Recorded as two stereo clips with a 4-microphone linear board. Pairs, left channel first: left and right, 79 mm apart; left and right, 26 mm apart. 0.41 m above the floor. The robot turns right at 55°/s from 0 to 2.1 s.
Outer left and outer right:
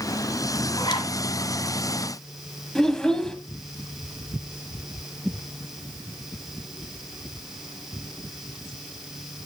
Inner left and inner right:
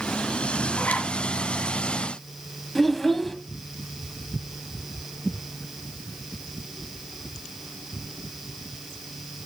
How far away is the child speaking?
About 1.3 m.